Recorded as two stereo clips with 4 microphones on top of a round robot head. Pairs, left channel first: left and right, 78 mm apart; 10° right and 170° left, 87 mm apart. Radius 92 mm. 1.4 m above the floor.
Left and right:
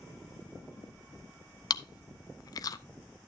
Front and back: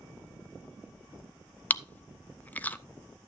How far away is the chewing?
About 0.6 m.